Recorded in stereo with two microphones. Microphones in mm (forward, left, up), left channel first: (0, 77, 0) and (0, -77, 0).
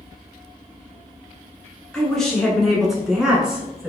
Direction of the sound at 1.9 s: 5° left (ahead or behind).